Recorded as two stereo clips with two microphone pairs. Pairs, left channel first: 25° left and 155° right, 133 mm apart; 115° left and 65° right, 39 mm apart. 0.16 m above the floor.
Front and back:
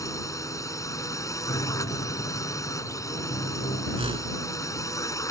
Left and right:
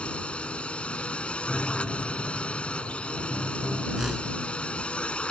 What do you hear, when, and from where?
0.0 s a drone: 75° left
1.5 s a piano: 40° left
4.0 s a whoosh: 140° right